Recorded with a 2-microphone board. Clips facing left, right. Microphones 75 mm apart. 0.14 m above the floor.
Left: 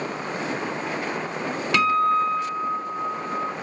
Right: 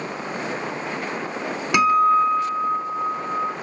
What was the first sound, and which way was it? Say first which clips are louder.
A guitar: right 4 dB; 15° right (ahead or behind).